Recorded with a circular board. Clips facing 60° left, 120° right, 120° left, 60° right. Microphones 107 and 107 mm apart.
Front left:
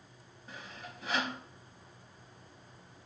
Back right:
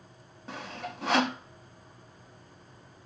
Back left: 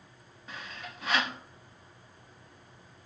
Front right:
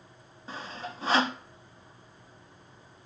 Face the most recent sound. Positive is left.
turn(degrees=-115)